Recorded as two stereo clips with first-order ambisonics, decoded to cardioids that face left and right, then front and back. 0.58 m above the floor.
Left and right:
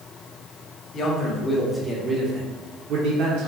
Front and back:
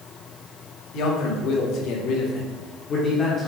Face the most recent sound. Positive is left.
turn(degrees=-70)